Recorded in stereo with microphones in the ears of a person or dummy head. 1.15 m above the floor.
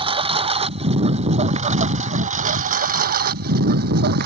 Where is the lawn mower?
25° right (ahead or behind); by 4.3 s 50° right (ahead or behind).